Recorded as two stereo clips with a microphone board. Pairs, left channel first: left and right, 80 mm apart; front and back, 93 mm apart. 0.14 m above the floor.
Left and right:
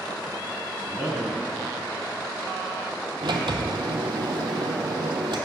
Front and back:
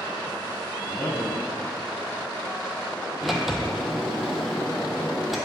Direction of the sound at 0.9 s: 15° right.